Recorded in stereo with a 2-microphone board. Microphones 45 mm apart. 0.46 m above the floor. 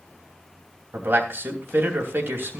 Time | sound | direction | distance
0.9 | a man speaking | 45° right (ahead or behind) | 3 m